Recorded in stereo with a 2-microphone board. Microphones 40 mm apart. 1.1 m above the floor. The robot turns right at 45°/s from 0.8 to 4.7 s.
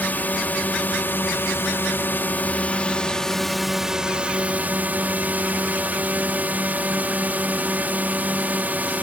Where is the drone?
55° left; by 9.0 s 130° right.